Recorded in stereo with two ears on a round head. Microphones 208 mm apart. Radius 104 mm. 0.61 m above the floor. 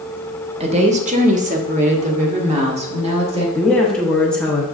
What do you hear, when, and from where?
0.6 s a woman speaking: 30° right (ahead or behind), 0.9 m
3.5 s a woman speaking: 5° left (ahead or behind), 1.1 m